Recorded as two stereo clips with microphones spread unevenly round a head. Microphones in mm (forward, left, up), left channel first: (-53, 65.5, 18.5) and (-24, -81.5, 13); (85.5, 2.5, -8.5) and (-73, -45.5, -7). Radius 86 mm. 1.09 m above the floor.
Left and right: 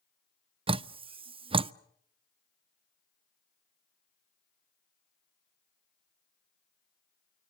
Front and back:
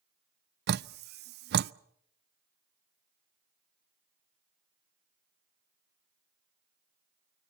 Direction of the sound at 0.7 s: 135° right.